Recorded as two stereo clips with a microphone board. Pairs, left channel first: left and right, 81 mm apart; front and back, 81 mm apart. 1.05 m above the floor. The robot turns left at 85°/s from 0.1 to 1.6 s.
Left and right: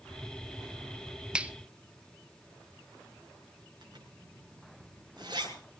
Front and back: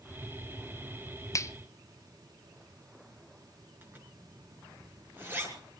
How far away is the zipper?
About 6.5 m.